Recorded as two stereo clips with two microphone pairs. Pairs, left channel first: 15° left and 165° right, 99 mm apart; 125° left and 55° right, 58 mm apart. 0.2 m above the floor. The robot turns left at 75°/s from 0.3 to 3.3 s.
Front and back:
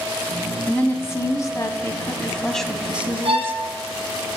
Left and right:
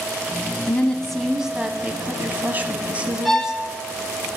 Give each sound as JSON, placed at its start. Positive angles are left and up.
{"t": 0.7, "sound": "a woman speaking", "azimuth_deg": 75, "distance_m": 1.1}
{"t": 3.2, "sound": "a violin", "azimuth_deg": -145, "distance_m": 1.1}